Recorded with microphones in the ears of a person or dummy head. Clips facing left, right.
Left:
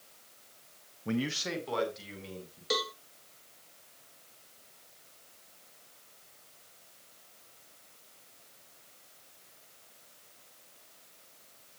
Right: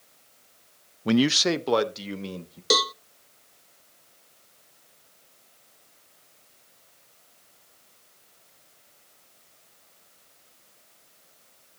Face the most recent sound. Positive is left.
turn(degrees=-65)  # may be behind; listen again after turning